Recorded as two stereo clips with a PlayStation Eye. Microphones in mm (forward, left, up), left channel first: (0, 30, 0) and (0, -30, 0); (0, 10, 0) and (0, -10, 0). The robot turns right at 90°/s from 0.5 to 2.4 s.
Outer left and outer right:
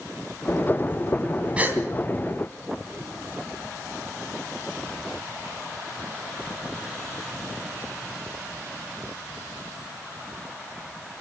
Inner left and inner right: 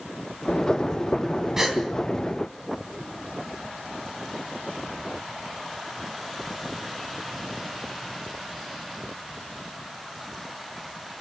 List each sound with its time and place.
1.6 s a gasp: 20° right (ahead or behind), 3 m; by 1.8 s 40° right (ahead or behind), 3 m